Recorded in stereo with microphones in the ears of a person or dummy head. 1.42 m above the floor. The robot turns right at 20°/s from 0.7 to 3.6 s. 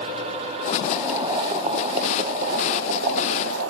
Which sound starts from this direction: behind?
Boiling, at 0.8 s.